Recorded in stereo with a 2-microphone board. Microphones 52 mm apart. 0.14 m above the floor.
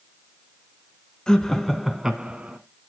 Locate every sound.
1.3 s laughter: 15° left (ahead or behind), 1.1 m; by 2.6 s 25° right (ahead or behind), 1.2 m